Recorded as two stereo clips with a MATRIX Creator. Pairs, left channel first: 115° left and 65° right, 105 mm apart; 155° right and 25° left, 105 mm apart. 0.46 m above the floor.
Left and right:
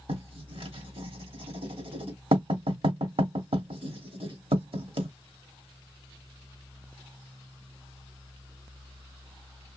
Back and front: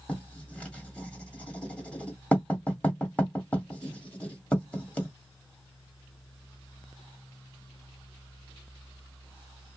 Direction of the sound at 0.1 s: 80° right.